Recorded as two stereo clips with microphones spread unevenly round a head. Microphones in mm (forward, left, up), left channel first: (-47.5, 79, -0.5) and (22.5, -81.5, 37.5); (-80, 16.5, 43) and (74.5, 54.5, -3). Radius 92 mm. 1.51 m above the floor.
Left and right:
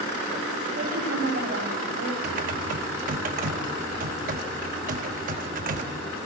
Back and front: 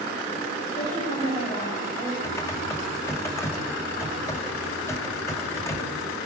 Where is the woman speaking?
110° right, 9 m; by 2.1 s 100° right, 8 m.